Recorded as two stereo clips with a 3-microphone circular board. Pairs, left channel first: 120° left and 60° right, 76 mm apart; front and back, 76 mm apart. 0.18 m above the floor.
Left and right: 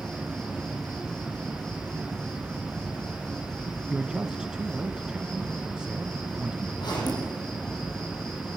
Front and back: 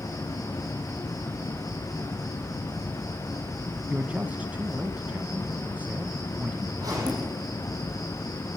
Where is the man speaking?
130° right, 1.1 m.